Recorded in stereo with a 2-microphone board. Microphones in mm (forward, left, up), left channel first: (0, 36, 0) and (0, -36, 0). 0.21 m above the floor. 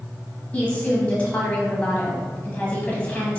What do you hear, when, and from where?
0.5 s a woman speaking: 20° left (ahead or behind), 1.0 m